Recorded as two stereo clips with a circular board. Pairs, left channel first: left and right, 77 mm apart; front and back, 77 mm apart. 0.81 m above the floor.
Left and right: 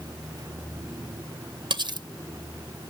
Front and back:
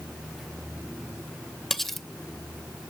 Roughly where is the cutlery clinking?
Right.